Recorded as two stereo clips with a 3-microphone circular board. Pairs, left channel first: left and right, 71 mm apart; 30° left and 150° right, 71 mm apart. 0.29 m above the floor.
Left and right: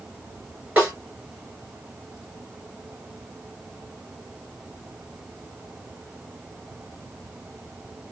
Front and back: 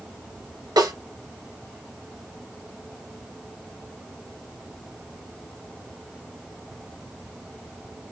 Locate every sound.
0.8 s a snare drum: 160° right, 3 m